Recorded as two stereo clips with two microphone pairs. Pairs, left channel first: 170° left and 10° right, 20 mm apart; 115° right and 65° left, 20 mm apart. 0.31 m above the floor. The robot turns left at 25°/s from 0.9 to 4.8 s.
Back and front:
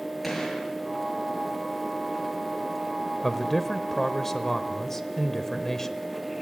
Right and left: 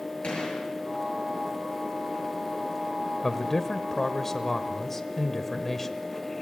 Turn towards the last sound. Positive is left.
turn(degrees=-165)